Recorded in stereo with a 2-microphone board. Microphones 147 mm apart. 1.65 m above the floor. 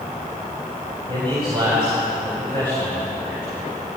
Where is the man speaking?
35° right (ahead or behind), 9 m.